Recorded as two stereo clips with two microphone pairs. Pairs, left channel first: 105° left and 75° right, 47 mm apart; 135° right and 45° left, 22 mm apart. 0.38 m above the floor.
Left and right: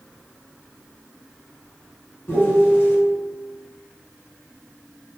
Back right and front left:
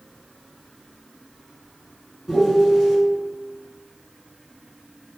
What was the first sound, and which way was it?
A piano, 145° left.